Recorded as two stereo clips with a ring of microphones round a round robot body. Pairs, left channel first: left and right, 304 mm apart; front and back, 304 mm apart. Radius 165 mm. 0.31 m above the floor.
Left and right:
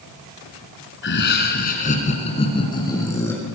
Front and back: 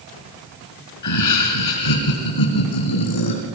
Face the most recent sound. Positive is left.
turn(degrees=5)